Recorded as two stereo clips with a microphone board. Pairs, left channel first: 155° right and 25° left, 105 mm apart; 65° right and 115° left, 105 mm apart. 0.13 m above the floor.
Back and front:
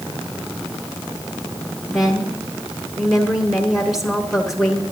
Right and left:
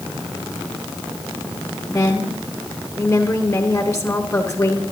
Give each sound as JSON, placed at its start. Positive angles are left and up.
{"t": 1.9, "sound": "a woman speaking", "azimuth_deg": -60, "distance_m": 1.2}